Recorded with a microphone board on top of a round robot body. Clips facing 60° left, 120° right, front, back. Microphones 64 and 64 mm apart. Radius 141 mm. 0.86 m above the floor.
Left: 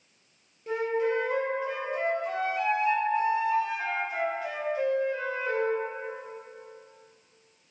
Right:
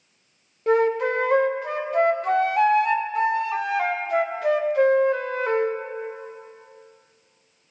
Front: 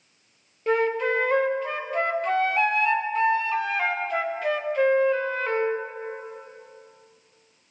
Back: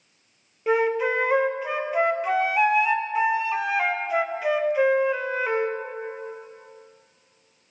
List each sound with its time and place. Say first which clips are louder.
0.7 s a flute: right 7 dB, back 1 dB; 95° right, 0.5 m